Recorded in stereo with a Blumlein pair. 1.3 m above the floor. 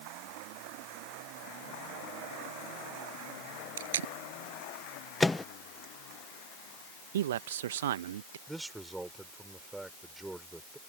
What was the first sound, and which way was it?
Tape being pulled, 65° right.